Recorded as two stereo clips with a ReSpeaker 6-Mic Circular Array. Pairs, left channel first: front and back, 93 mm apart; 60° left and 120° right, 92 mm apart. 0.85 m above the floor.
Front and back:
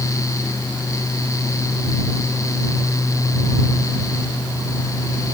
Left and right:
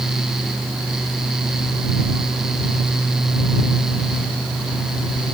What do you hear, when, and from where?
Only background noise.